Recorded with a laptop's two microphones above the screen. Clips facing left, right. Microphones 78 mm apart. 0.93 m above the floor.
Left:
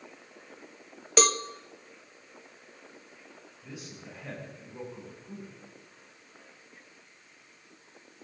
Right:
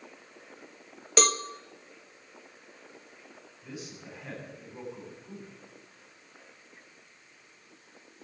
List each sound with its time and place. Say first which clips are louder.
1.2 s a cowbell: left 1 dB; centre (ahead or behind), 0.6 m
3.6 s a man speaking: right 2 dB; 5° left (ahead or behind), 8.5 m